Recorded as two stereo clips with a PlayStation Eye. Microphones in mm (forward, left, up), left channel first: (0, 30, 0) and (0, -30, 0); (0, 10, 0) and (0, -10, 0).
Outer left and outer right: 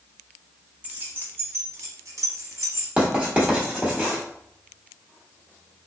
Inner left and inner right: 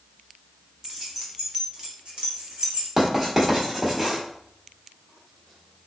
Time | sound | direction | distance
0.8 | keys jangling | 25° right (ahead or behind) | 1.1 m
3.0 | writing | 20° right (ahead or behind) | 1.4 m